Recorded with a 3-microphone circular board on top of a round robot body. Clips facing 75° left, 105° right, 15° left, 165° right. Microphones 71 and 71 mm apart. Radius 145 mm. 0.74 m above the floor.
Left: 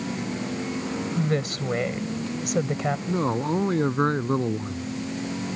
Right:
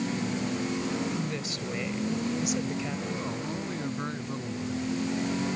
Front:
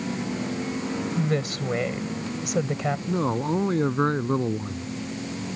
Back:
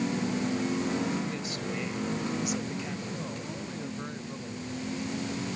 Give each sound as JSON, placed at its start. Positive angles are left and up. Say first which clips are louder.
{"t": 1.2, "sound": "a woman speaking", "louder": "left 7 dB, front 8 dB", "azimuth_deg": 45}
{"t": 3.1, "sound": "a man speaking", "louder": "left 9 dB, front 12 dB", "azimuth_deg": 40}